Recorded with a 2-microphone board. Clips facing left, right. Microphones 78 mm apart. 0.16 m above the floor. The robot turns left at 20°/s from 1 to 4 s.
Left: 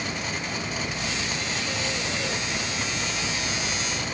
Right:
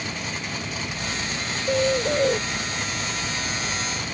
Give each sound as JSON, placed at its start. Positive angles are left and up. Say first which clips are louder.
{"t": 1.7, "sound": "a bird", "louder": "right 9 dB", "side_deg": -80}